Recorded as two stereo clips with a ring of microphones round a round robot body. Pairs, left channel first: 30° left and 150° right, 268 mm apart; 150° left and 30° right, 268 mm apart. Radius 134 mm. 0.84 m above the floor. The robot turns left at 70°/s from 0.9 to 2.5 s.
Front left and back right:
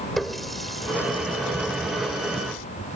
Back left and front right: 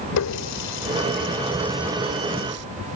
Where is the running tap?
120° left; by 2.6 s 5° left.